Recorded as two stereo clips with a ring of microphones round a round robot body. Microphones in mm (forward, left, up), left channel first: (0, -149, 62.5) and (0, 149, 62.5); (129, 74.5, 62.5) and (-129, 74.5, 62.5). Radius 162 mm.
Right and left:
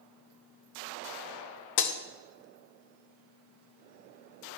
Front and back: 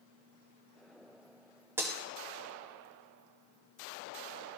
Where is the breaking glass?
100° right, 0.6 m.